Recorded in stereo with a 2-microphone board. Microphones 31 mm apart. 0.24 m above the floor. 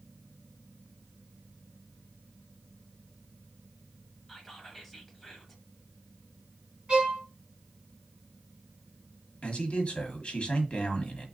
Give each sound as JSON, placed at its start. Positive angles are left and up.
{"t": 4.3, "sound": "whispering", "side_deg": 5, "distance_m": 1.2}
{"t": 6.9, "sound": "a violin", "side_deg": -30, "distance_m": 2.5}
{"t": 9.4, "sound": "a man speaking", "side_deg": 40, "distance_m": 1.3}